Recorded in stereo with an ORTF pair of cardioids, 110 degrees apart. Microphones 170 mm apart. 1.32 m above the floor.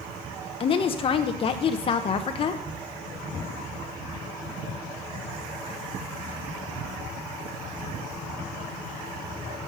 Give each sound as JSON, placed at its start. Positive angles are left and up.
{"t": 0.6, "sound": "a woman speaking", "azimuth_deg": 35, "distance_m": 0.6}